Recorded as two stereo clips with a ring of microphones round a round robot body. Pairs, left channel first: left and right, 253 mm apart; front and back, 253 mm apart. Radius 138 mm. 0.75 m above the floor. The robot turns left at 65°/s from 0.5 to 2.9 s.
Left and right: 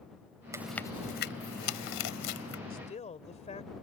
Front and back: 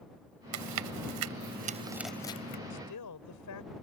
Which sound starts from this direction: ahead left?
A woman speaking, at 2.7 s.